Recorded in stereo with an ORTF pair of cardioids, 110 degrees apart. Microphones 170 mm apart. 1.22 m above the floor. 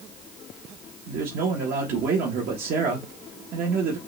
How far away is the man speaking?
About 1.4 m.